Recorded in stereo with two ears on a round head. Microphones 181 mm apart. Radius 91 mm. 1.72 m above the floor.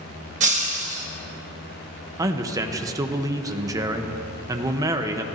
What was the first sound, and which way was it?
Breaking glass, 35° right (ahead or behind).